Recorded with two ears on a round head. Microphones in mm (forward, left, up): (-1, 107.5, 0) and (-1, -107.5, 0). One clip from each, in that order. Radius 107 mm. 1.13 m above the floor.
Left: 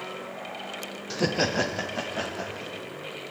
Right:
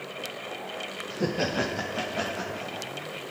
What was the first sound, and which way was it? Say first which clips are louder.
Laughter: left 3 dB; 45° left (ahead or behind).